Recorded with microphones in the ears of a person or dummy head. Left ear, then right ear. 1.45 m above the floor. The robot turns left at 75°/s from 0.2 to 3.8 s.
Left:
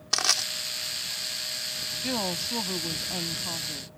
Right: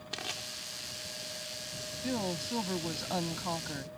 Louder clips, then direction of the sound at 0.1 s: Left 14 dB; 50° left (ahead or behind).